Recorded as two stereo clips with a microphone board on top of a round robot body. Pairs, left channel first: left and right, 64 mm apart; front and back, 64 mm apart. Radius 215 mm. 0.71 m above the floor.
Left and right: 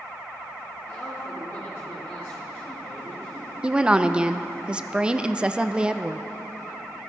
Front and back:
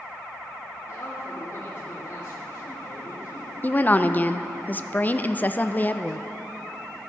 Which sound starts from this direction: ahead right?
A woman speaking, at 3.6 s.